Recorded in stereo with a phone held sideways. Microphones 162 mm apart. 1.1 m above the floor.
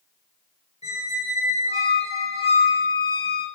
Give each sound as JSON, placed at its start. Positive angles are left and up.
{"t": 0.8, "sound": "a squeak", "side_deg": 40, "distance_m": 0.9}